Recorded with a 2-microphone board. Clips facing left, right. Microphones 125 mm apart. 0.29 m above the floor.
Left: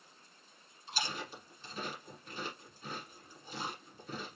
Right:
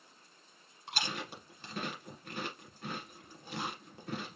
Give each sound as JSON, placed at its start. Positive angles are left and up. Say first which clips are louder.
{"t": 0.9, "sound": "chewing", "louder": "right 1 dB", "side_deg": -70, "distance_m": 1.4}